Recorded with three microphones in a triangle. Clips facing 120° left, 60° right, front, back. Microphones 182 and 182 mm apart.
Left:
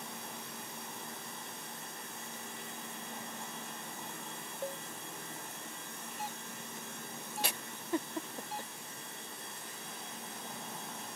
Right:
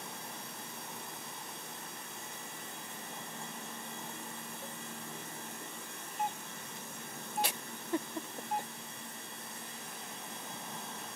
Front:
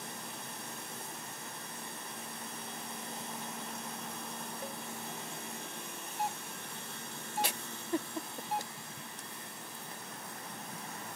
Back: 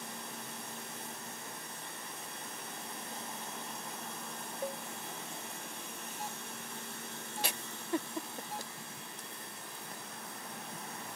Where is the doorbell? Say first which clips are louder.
Right 7 dB, front 8 dB; 25° right.